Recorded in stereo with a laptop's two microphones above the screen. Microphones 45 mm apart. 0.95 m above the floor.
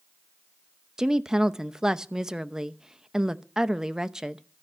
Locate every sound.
1.0 s a woman speaking: 15° right (ahead or behind), 0.7 m